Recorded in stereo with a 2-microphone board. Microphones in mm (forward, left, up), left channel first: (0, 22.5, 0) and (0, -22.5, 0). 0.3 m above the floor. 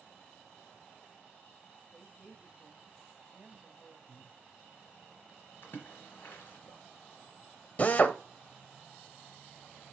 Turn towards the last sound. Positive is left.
turn(degrees=35)  # may be behind; listen again after turning